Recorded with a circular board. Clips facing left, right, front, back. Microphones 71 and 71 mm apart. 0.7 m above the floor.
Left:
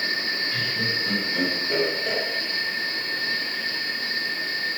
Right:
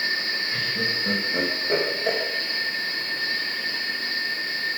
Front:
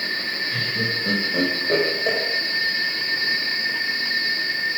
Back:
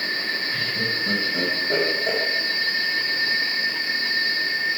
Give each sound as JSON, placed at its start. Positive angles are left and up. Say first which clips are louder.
{"t": 0.5, "sound": "laughter", "louder": "right 1 dB, front 1 dB", "azimuth_deg": -25, "distance_m": 3.5}